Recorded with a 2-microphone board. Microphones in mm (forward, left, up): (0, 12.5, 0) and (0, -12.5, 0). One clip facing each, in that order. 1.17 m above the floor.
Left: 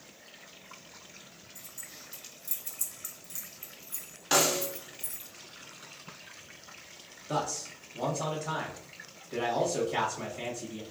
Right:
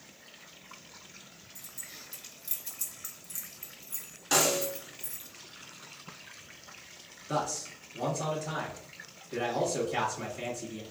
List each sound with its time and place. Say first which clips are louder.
1.6 s keys jangling: right 2 dB; 75° right (ahead or behind), 1.1 m; by 5.3 s 60° left (ahead or behind), 1.5 m
4.3 s a snare drum: even; 25° left (ahead or behind), 0.8 m
7.3 s a man speaking: even; 20° left (ahead or behind), 1.5 m